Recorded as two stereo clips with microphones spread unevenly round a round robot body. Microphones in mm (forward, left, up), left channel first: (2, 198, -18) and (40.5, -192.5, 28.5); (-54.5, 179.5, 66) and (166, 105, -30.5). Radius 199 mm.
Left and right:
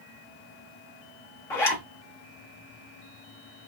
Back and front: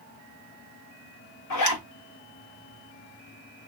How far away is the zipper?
About 0.7 m.